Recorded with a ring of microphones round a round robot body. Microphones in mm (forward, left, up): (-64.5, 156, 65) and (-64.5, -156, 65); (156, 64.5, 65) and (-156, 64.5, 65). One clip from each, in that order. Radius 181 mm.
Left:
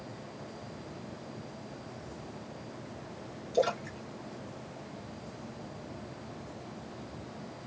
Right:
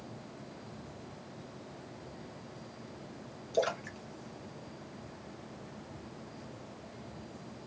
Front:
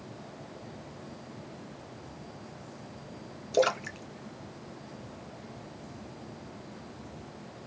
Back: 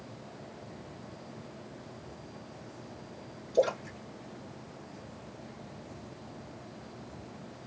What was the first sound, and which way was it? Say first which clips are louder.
A splash: left 3 dB, front 2 dB; 15° right.